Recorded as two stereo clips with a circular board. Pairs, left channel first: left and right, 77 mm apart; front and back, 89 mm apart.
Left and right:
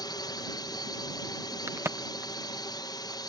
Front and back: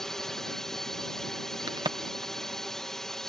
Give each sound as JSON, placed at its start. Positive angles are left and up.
{"t": 0.0, "sound": "a drone", "azimuth_deg": 85}
{"t": 1.7, "sound": "a crack", "azimuth_deg": -145}